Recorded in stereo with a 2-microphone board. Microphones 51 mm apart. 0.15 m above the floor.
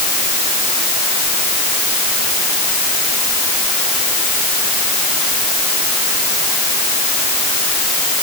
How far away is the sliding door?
I don't hear a sliding door.